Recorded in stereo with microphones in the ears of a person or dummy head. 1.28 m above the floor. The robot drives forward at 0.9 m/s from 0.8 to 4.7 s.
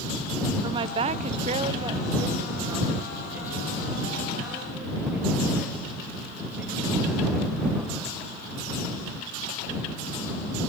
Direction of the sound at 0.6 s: 25° right (ahead or behind).